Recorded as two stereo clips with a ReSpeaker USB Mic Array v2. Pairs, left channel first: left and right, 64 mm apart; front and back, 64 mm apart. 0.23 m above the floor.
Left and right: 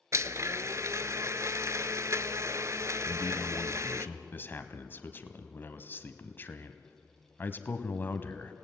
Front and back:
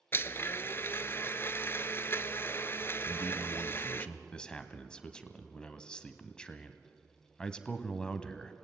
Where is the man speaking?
65° left, 1.2 m.